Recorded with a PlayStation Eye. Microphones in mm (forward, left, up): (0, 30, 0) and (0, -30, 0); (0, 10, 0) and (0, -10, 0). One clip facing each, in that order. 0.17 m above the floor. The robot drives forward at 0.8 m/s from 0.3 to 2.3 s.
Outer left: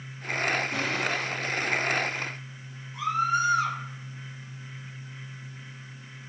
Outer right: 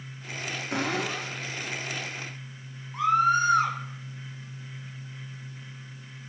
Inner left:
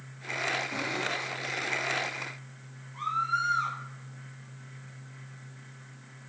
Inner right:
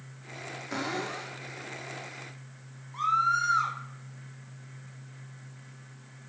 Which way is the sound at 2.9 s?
55° right (ahead or behind).